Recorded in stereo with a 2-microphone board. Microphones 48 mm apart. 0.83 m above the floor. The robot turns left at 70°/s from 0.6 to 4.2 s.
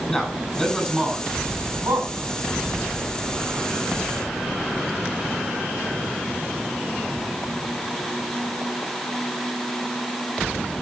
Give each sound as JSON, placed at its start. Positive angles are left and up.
{"t": 0.1, "sound": "a man speaking", "side_deg": 10, "distance_m": 9.5}